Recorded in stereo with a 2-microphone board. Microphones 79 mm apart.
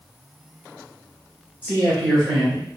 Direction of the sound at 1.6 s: 20° left (ahead or behind).